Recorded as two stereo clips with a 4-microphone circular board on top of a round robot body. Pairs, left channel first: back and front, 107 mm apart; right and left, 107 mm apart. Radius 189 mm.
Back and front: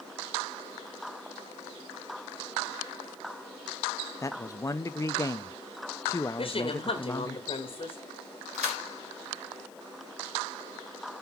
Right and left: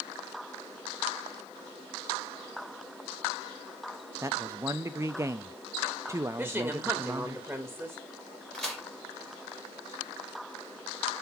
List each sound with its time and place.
4.2 s a man speaking: 135° left, 0.6 m
6.4 s a woman speaking: 165° left, 1.7 m
8.5 s a crack: 5° right, 4.5 m